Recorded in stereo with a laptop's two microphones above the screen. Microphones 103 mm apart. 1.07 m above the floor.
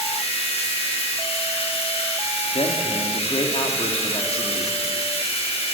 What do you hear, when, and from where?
0.0 s running water: 85° left, 4.5 m
2.5 s a man speaking: 70° left (ahead or behind), 2.5 m